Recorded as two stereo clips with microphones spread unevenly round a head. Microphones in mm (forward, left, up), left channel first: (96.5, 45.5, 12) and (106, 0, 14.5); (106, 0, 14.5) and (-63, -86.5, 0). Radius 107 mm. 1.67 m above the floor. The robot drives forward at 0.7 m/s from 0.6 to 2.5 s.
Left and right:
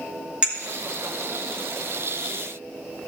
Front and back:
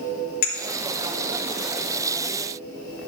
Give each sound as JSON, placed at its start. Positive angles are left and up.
{"t": 0.4, "sound": "a clink", "azimuth_deg": -10, "distance_m": 2.5}